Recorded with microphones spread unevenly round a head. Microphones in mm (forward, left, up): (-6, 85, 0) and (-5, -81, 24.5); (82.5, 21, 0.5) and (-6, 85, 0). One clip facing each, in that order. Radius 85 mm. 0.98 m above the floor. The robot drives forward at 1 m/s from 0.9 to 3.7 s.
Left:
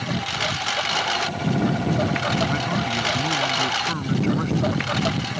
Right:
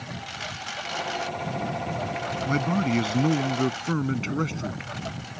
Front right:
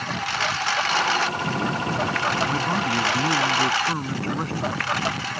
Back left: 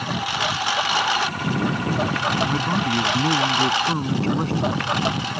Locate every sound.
0.0 s a lawn mower: 70° left; by 5.4 s 75° left
2.5 s a man speaking: 135° right; by 4.8 s 140° right